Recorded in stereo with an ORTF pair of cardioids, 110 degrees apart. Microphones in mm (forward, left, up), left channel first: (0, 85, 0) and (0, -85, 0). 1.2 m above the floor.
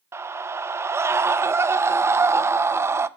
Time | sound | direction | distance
0.1 | a scream | 15° right | 0.7 m